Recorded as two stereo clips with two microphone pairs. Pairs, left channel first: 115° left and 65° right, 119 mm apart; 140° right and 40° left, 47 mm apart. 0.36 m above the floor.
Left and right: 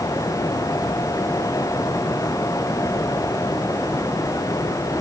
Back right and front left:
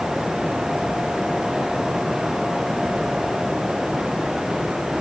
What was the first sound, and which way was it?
Only background noise.